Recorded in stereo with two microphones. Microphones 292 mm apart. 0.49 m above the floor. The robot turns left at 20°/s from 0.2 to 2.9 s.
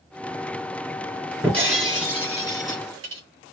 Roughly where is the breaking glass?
Centre.